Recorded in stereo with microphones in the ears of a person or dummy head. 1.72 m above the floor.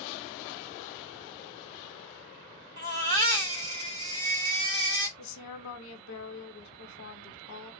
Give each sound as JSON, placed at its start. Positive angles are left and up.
{"t": 2.8, "sound": "a baby crying", "side_deg": -15, "distance_m": 0.7}
{"t": 5.2, "sound": "a woman speaking", "side_deg": 75, "distance_m": 1.2}